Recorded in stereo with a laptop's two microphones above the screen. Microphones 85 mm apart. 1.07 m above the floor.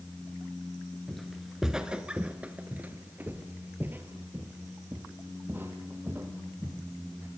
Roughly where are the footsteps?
Centre.